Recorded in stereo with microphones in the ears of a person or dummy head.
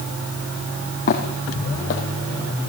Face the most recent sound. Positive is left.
turn(degrees=45)  # may be behind; listen again after turning